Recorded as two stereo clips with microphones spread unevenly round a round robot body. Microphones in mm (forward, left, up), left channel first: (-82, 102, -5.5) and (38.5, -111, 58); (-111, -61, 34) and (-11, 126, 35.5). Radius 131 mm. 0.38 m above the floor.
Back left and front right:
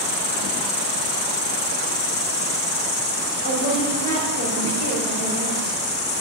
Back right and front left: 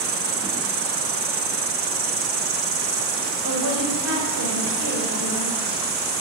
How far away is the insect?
About 1.9 m.